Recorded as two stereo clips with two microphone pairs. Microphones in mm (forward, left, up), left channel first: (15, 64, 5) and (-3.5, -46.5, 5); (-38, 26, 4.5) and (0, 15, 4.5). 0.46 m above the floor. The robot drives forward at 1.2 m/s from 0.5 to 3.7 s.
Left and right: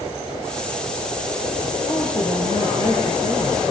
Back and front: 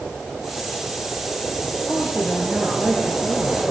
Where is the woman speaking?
35° left, 8.5 m; by 3.6 s 50° left, 7 m.